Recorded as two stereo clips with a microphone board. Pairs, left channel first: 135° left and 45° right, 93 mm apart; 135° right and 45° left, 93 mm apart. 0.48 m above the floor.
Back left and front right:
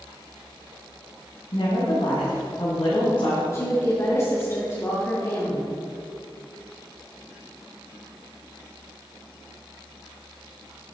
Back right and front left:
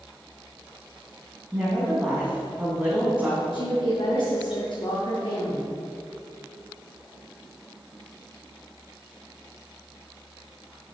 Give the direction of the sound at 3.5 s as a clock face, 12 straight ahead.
6 o'clock.